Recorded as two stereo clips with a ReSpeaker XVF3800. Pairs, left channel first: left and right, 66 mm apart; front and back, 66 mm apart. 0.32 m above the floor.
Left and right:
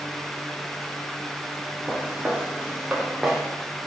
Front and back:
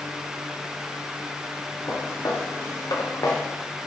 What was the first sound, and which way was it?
Footsteps, 20° right.